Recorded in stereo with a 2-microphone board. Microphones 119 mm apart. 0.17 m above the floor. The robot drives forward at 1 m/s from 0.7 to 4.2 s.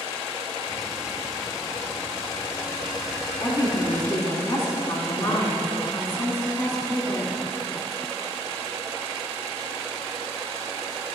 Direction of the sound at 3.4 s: 35° left (ahead or behind).